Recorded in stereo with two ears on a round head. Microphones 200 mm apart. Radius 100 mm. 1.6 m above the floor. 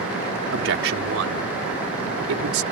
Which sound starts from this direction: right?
A man speaking, at 0.5 s.